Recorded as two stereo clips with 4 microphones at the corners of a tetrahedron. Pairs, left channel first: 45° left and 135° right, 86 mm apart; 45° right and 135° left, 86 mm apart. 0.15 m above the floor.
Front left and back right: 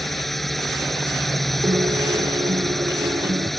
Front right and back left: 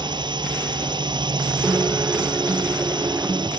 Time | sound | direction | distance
0.0 | a drone | 135° left | ?
1.6 | a guitar | 160° right | ?